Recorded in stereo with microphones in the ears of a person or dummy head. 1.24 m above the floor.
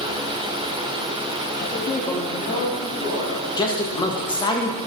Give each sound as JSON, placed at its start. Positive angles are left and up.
{"t": 1.6, "sound": "a man speaking", "side_deg": 25, "distance_m": 0.7}
{"t": 3.6, "sound": "a man speaking", "side_deg": 25, "distance_m": 0.9}